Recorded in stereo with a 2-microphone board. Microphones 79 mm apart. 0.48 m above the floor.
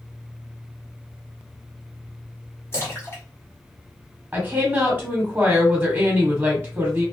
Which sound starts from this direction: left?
A splash, at 2.7 s.